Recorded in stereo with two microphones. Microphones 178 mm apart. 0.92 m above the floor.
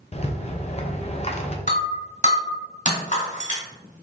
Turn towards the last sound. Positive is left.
turn(degrees=45)  # may be behind; listen again after turning